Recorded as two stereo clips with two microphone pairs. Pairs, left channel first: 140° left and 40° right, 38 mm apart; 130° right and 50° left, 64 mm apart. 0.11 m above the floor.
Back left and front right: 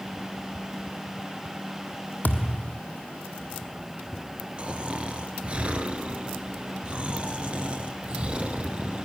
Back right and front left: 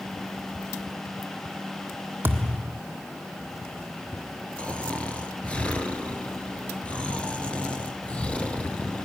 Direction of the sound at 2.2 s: 100° left.